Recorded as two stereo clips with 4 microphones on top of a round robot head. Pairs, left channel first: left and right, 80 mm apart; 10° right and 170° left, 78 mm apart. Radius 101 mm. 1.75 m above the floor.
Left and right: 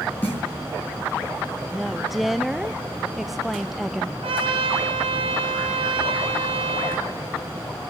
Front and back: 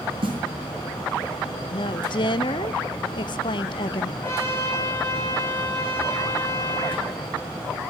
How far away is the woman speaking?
About 0.5 m.